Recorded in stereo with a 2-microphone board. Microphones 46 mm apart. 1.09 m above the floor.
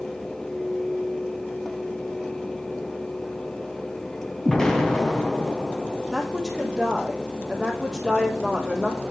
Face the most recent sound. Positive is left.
turn(degrees=-5)  # may be behind; listen again after turning